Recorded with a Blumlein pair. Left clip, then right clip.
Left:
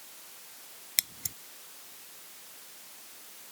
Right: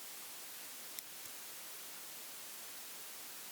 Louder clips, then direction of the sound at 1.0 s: Left 16 dB; 50° left.